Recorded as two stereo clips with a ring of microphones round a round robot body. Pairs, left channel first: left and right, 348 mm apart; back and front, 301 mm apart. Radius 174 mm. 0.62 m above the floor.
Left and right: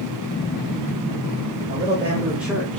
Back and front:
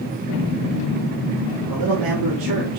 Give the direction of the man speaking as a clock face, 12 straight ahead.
12 o'clock.